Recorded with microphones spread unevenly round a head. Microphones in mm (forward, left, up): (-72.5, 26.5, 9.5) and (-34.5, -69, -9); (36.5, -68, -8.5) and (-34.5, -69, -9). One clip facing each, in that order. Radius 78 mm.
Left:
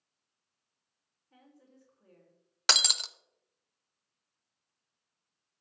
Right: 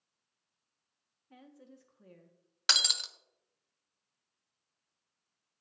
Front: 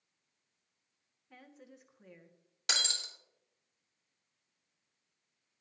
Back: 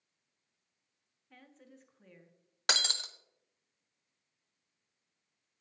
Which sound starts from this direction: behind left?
Breaking glass, at 2.7 s.